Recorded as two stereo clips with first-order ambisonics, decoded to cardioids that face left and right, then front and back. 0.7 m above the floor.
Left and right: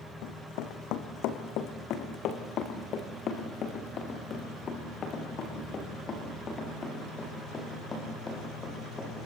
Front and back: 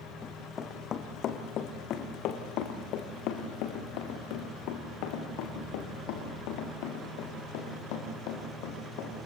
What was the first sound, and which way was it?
Running footsteps, 65° left.